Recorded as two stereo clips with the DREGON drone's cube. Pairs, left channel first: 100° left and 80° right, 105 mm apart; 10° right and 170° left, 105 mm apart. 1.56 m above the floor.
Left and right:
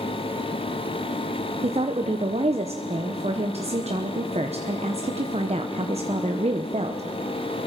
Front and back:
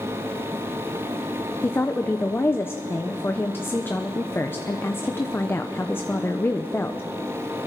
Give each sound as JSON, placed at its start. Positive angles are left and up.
{"t": 1.6, "sound": "a woman speaking", "azimuth_deg": -80, "distance_m": 1.0}